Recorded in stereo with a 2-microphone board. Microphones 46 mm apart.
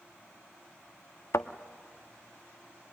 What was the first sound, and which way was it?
A thud, 70° left (ahead or behind).